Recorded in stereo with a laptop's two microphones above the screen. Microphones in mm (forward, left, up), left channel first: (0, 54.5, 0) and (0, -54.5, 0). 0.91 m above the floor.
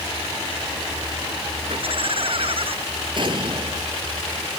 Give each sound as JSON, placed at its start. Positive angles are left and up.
{"t": 1.7, "sound": "laughter", "side_deg": -55}
{"t": 3.2, "sound": "an explosion", "side_deg": -45}